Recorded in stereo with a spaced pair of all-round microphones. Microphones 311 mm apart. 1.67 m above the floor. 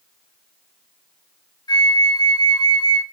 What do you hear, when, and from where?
1.7 s a flute: 15° left (ahead or behind), 0.6 m